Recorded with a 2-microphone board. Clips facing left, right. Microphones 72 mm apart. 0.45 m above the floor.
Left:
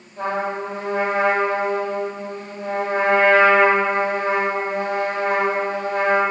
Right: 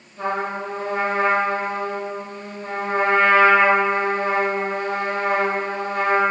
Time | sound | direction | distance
0.2 | a trumpet | 55° left (ahead or behind) | 1.8 m